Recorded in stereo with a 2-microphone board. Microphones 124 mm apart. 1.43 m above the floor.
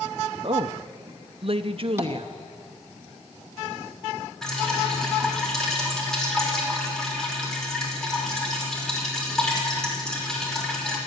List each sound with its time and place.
0.4 s a woman speaking: 50° right (ahead or behind), 0.9 m
2.0 s tapping: 20° right (ahead or behind), 2 m
4.4 s dripping: 5° left (ahead or behind), 5.5 m